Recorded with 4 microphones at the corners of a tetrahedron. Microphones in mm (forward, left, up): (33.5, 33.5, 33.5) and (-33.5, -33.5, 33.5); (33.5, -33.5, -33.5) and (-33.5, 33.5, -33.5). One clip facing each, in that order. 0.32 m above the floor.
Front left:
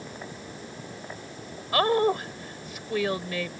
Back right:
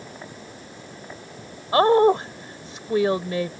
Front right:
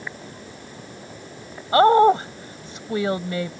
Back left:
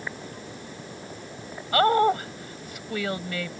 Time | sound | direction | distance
1.7 | a woman speaking | 90° right | ?